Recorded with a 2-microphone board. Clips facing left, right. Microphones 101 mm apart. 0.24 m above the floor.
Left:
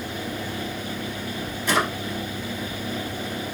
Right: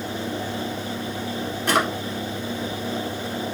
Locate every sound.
1.7 s a drawer: 60° right (ahead or behind), 1.3 m